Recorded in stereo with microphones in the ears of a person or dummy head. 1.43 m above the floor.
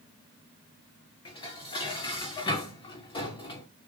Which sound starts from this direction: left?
Dishes clattering, at 1.2 s.